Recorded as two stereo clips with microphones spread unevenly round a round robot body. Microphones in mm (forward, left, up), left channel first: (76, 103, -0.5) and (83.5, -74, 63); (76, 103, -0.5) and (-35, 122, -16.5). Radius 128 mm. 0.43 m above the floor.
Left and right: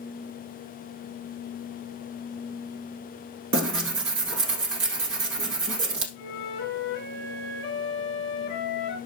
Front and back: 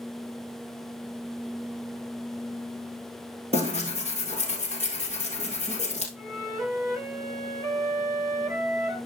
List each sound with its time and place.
3.5 s tearing paper: 125° right, 1.3 m
6.2 s a flute: 110° left, 5 m